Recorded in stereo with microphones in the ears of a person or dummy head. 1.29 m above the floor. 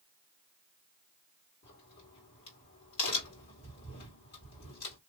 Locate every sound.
1.6 s a crack: 50° left (ahead or behind), 2.0 m